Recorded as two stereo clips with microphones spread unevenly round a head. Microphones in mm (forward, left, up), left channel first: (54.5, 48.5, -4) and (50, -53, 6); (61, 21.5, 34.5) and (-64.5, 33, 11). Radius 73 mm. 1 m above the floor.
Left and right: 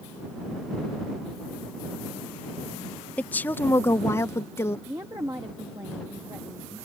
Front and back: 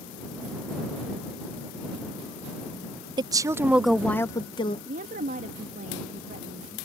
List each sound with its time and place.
3.2 s a woman speaking: 155° left; by 4.8 s 40° left
4.9 s a woman speaking: 165° right